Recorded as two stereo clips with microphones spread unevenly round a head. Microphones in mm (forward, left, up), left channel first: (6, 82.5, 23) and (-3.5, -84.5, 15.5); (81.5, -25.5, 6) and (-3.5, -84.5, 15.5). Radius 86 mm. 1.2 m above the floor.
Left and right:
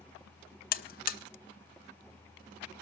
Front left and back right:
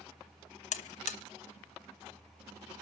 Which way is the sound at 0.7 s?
50° left.